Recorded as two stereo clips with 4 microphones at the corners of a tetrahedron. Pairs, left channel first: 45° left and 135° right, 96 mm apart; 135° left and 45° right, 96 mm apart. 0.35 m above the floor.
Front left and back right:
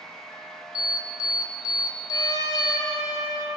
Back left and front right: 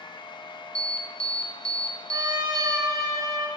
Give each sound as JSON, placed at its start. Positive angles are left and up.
{"t": 0.8, "sound": "an alarm", "azimuth_deg": 60, "distance_m": 1.0}
{"t": 2.1, "sound": "a trumpet", "azimuth_deg": -5, "distance_m": 1.2}